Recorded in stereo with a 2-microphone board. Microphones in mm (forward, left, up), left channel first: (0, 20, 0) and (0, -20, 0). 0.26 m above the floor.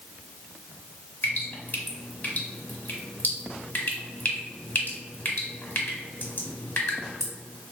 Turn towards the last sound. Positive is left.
turn(degrees=45)  # may be behind; listen again after turning